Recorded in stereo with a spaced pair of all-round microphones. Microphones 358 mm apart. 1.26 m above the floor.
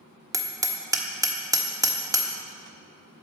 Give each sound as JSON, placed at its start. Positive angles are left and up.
{"t": 0.3, "sound": "hammering", "side_deg": -10, "distance_m": 1.2}